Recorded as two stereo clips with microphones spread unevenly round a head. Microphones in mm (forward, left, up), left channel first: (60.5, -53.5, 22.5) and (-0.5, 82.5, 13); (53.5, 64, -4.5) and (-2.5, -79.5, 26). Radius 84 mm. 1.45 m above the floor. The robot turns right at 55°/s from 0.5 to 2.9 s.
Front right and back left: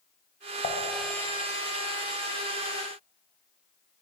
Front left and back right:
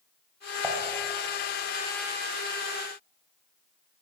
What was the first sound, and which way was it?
Dishes clattering, 40° right.